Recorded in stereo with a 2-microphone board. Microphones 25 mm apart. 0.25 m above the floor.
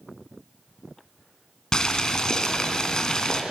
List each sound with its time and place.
1.7 s boiling: 25° left (ahead or behind), 2 m